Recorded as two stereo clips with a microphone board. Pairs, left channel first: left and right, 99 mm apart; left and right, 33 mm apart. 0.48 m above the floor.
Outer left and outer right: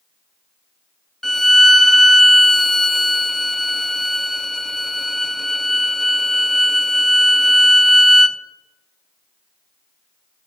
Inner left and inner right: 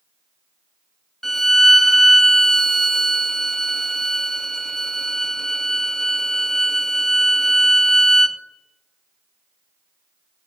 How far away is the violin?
About 0.5 m.